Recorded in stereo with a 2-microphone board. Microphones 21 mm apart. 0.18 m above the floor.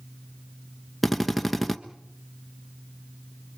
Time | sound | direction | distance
1.0 | a drill | 5° left (ahead or behind) | 1.2 m